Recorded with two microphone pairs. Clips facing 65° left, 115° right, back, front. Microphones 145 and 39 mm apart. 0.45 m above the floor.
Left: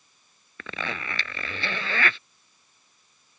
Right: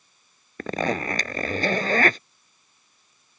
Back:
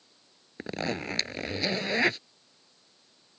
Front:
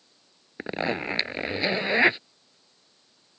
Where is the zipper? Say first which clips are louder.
Right 10 dB, front 4 dB; 65° right.